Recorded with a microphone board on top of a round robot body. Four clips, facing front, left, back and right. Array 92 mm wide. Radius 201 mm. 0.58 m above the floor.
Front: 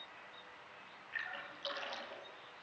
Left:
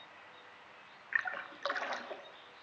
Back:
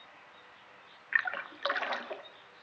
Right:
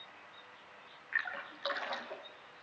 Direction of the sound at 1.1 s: 165° left.